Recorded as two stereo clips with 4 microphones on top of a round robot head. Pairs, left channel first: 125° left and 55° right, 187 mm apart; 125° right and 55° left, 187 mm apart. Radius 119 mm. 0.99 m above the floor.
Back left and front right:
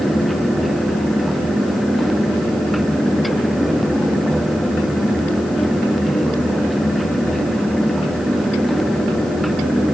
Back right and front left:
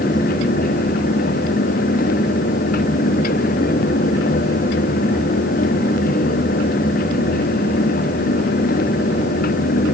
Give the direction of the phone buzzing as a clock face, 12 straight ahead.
I don't hear a phone buzzing.